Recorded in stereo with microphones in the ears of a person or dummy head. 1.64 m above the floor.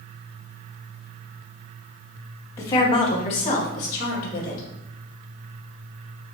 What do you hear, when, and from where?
2.6 s a woman speaking: 15° left (ahead or behind), 0.6 m; by 4.6 s 50° left (ahead or behind), 1.9 m